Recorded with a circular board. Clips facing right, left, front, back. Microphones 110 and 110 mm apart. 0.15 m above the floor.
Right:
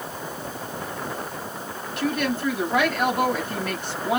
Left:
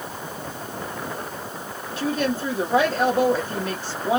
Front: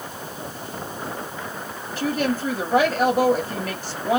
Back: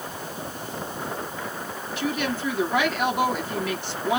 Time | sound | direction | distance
2.0 | a woman speaking | 40° left | 2.5 m